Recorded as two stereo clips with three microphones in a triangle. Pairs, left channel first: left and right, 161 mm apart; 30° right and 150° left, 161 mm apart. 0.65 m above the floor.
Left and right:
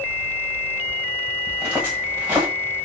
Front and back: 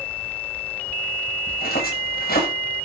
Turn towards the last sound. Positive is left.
turn(degrees=-10)